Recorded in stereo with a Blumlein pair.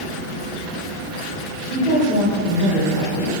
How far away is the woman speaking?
About 1.2 m.